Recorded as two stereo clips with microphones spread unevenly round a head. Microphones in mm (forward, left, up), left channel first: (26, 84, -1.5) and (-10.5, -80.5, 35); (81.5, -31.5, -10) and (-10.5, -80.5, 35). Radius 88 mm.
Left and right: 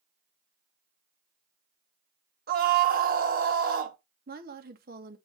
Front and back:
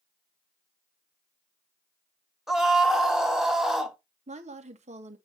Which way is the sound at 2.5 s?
65° right.